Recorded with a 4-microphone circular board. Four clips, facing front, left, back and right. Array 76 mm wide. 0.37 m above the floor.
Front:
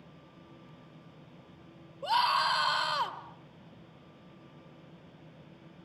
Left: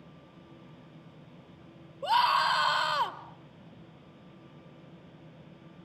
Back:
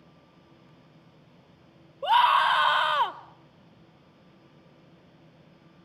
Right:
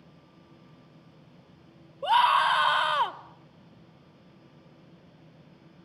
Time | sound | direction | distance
2.0 | a scream | 150° right | 1.3 m